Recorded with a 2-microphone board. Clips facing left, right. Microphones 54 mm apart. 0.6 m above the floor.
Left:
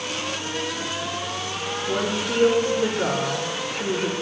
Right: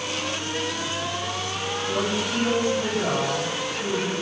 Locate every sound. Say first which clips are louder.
1.9 s a woman speaking: left 1 dB; 55° left (ahead or behind), 10 m